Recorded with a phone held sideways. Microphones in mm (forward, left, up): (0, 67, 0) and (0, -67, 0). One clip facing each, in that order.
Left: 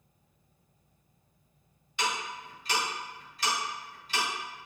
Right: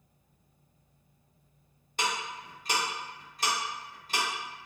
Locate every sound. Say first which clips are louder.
2.0 s ticking: even; 45° right (ahead or behind), 1.0 m